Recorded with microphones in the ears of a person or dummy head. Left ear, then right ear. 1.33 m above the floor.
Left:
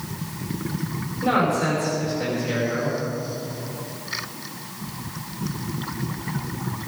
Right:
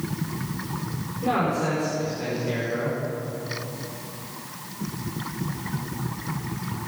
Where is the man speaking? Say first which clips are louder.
Left 3 dB; 5° left (ahead or behind), 5.5 m.